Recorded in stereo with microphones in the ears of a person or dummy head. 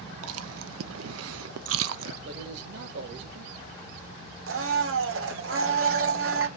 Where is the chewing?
80° right, 0.6 m.